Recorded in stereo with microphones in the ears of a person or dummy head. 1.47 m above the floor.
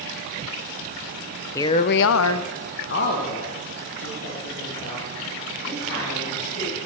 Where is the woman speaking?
15° left (ahead or behind), 0.8 m; by 6.8 s 45° left (ahead or behind), 7 m.